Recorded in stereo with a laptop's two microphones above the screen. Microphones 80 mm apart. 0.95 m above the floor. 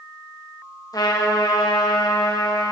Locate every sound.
0.9 s a trumpet: 55° left (ahead or behind), 1.1 m